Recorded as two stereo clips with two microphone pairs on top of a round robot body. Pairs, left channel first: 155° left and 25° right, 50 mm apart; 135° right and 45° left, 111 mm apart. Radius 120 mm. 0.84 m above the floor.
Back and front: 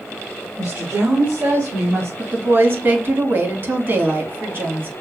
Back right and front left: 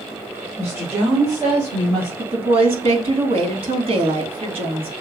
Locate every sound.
0.6 s a woman speaking: 25° right, 2.5 m; by 2.1 s straight ahead, 3 m
2.2 s a woman speaking: 10° left, 1.9 m